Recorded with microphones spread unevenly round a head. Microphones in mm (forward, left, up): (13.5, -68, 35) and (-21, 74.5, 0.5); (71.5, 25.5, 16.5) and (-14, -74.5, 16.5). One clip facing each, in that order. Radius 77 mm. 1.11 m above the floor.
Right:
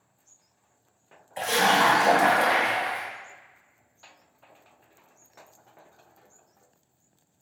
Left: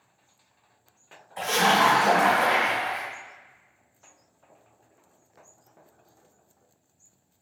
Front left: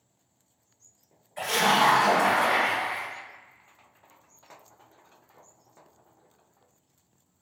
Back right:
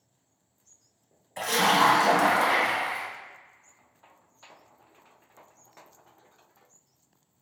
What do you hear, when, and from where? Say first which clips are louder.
1.4 s a splash: even, even; 135° right, 2 m